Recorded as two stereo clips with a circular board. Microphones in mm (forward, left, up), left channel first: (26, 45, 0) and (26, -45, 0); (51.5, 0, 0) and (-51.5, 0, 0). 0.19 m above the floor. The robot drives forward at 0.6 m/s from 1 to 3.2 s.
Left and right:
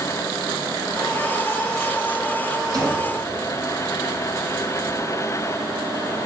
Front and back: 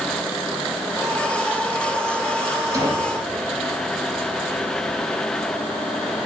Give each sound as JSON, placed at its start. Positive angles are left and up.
{"t": 2.7, "sound": "a gunshot", "azimuth_deg": -125, "distance_m": 4.0}